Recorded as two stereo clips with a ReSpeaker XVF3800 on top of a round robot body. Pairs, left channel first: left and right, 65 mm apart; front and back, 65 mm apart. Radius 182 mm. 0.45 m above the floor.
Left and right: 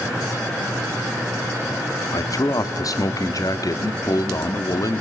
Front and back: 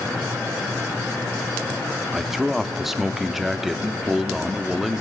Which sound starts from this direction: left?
A man speaking, at 2.1 s.